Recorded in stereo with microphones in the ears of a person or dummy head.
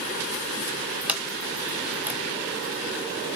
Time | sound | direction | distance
1.1 | a sliding door | 10° right (ahead or behind) | 1.2 m